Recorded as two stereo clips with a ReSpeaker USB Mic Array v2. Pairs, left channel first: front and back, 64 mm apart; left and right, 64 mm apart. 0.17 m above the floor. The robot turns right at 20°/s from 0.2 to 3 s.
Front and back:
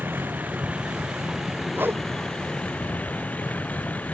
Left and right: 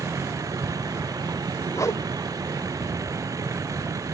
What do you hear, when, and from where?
0.0 s a vehicle: 120° right; by 4.1 s 65° right
1.7 s a whoosh: 125° left; by 2.0 s 130° left